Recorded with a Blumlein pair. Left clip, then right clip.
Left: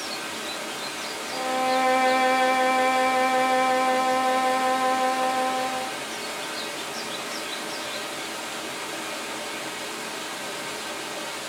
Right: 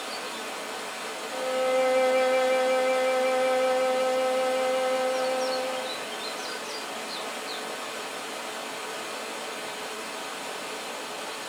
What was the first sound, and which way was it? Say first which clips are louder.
Running water: left 2 dB; 25° left.